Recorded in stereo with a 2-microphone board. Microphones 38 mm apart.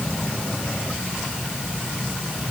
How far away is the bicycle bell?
I don't hear a bicycle bell.